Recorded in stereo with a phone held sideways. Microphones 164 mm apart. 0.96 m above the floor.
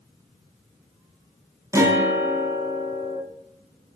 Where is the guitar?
20° right (ahead or behind), 0.7 m.